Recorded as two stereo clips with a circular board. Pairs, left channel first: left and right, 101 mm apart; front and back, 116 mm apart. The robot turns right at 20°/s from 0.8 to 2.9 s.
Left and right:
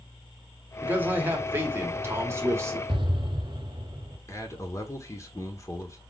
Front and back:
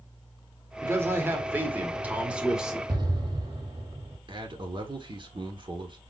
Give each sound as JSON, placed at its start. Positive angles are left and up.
{"t": 0.8, "sound": "a man speaking", "azimuth_deg": -140, "distance_m": 1.3}
{"t": 2.9, "sound": "an explosion", "azimuth_deg": -130, "distance_m": 1.6}
{"t": 4.3, "sound": "a man speaking", "azimuth_deg": 145, "distance_m": 1.3}